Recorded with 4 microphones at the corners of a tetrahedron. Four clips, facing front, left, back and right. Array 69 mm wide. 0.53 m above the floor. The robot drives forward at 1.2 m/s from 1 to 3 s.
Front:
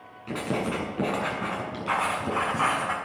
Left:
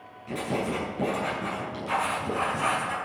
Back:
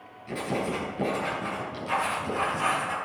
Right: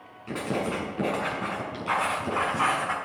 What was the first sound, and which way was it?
Writing, 35° right.